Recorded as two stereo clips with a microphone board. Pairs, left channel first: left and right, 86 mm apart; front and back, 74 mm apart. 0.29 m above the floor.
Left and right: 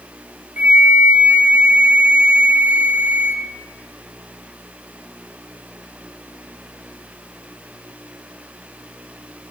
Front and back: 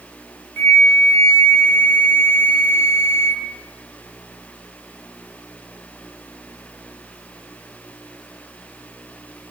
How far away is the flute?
About 1.4 m.